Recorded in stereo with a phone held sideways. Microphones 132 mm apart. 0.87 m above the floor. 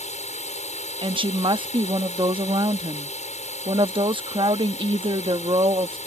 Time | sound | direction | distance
0.0 | a drone | 60° left (ahead or behind) | ?
1.0 | a woman speaking | 40° right (ahead or behind) | ?